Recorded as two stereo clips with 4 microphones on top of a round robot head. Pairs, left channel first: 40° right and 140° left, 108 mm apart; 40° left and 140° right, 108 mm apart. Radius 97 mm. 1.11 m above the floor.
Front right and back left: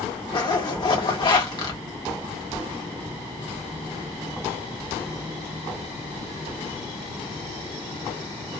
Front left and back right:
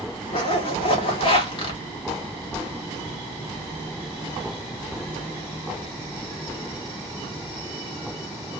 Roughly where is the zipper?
Ahead.